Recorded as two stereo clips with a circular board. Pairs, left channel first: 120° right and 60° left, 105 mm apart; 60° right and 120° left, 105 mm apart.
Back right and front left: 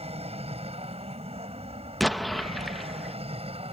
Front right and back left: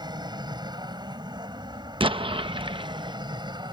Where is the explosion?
150° left.